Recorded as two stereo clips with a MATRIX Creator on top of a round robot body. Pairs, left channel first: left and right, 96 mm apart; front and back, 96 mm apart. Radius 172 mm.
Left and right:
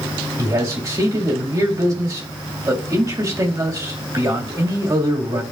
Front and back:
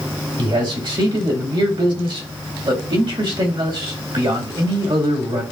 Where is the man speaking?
145° right, 2 m.